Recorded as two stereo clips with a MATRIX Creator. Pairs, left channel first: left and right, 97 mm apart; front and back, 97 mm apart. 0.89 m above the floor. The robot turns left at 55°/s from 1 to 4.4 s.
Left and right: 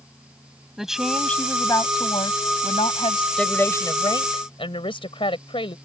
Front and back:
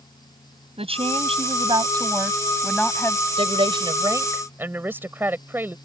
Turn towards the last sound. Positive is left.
turn(degrees=110)